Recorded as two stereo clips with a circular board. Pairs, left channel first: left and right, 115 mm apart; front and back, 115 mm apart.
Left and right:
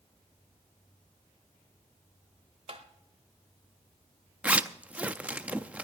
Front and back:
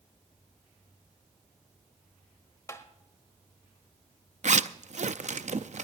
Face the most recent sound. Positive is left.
turn(degrees=-165)